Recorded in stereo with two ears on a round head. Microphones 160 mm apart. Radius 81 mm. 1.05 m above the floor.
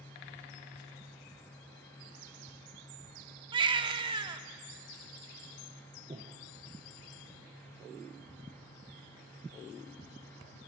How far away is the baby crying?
About 0.6 m.